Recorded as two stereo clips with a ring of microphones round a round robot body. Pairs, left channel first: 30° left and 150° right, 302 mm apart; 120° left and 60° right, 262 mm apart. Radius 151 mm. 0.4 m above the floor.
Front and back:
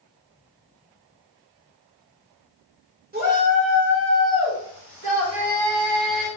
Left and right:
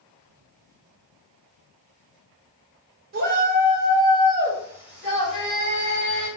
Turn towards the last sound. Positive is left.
turn(degrees=-155)